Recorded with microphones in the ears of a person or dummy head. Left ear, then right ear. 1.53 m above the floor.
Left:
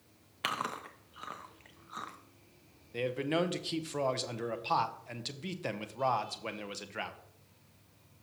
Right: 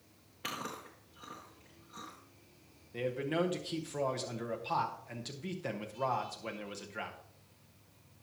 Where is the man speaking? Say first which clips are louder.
Left 2 dB; 15° left (ahead or behind), 0.7 m.